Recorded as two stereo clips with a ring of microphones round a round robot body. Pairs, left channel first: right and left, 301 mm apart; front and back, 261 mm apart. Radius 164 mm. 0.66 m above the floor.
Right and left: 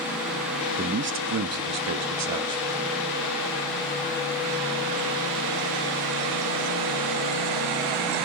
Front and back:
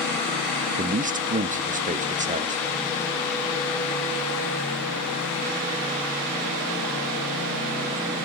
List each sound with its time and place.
0.8 s a man speaking: 135° left, 0.7 m; by 2.9 s 115° left, 2 m